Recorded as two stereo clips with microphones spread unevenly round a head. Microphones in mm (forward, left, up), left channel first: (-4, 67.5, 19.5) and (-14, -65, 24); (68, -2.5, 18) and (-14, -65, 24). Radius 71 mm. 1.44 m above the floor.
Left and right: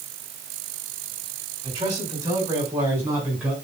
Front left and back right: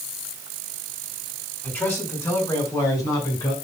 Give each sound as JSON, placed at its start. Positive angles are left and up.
{"t": 1.6, "sound": "a man speaking", "azimuth_deg": -35, "distance_m": 6.0}